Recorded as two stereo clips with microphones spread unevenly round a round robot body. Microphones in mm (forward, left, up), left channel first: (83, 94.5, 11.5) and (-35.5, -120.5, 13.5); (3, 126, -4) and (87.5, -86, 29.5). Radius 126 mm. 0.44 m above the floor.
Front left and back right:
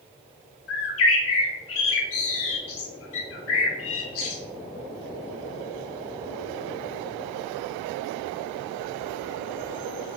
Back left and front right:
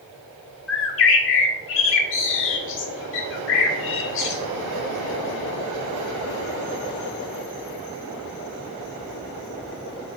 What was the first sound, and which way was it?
A bird, 95° left.